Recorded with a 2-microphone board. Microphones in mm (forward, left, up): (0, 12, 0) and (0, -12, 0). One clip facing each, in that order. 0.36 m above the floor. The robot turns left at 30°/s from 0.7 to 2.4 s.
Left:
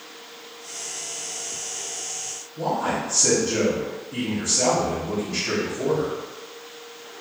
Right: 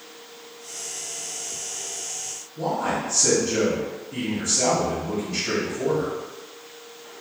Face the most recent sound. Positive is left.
turn(degrees=5)  # may be behind; listen again after turning